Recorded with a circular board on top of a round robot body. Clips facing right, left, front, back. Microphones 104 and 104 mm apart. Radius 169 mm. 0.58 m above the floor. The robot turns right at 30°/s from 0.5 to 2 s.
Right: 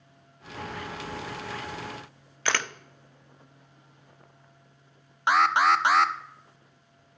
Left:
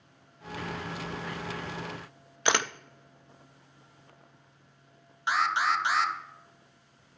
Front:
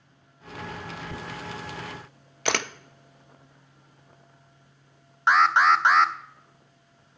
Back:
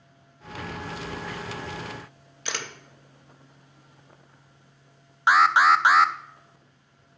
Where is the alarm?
95° right, 0.8 m.